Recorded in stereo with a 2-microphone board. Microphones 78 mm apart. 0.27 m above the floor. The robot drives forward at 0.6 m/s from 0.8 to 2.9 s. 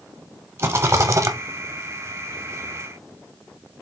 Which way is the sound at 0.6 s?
35° right (ahead or behind).